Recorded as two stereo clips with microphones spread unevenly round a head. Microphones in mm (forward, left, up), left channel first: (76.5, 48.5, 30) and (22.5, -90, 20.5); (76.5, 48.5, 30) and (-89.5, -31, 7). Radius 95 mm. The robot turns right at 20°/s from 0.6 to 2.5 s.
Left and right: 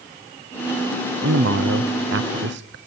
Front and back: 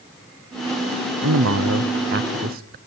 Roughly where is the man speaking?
Behind right.